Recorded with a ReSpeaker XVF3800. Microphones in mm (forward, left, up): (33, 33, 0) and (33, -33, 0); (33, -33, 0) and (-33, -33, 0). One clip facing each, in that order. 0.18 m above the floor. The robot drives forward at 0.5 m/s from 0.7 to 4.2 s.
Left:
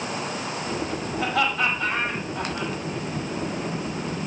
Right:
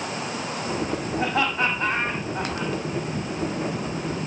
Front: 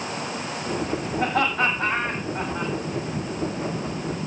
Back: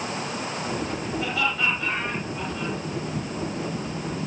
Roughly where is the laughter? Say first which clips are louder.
Even, front 5 dB; ahead right.